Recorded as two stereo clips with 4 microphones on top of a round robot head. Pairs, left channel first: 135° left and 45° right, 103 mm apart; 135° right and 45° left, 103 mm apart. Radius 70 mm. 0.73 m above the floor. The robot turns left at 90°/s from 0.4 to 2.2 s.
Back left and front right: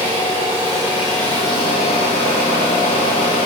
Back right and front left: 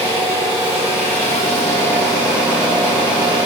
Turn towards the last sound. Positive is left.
turn(degrees=125)